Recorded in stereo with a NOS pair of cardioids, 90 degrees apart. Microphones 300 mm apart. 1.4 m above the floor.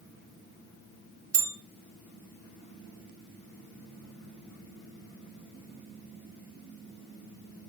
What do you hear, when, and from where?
1.3 s a bell: 50° right, 1.4 m